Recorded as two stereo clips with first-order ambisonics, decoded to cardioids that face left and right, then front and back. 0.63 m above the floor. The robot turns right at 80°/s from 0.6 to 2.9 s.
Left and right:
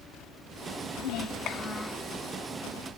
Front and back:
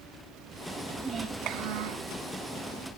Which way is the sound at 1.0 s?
100° left.